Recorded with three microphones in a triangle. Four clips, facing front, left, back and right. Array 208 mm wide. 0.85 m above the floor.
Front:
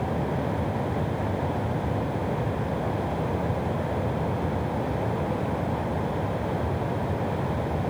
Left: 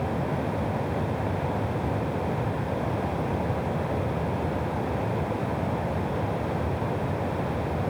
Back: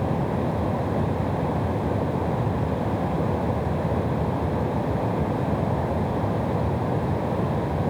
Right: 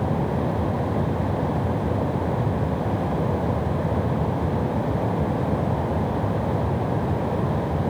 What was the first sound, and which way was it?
Only background noise.